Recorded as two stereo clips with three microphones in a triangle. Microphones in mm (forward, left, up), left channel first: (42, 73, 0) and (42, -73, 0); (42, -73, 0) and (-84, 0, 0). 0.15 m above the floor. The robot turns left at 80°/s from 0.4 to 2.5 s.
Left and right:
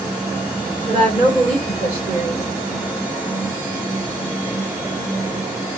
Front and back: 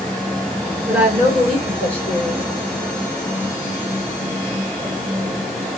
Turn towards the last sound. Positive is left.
turn(degrees=100)